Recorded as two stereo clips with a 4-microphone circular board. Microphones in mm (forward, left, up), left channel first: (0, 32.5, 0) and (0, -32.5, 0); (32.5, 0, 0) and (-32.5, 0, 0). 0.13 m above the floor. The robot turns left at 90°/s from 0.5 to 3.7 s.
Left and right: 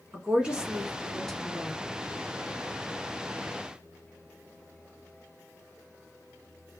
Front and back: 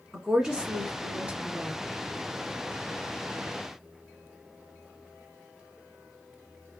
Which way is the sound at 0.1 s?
125° right.